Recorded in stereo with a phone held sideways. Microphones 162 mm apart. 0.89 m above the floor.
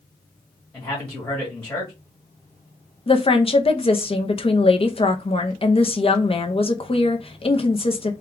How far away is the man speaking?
About 1.7 m.